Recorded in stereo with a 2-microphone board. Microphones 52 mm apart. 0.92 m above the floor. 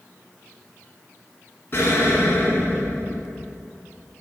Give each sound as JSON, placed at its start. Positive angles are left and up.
{"t": 1.7, "sound": "an explosion", "side_deg": 40, "distance_m": 1.7}